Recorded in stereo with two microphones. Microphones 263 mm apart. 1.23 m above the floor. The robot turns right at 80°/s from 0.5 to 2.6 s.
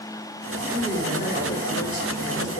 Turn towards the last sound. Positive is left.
turn(degrees=145)